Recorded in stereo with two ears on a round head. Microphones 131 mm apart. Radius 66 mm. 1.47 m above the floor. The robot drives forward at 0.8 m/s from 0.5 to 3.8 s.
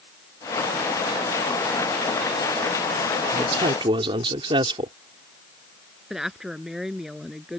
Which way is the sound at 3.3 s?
40° right (ahead or behind).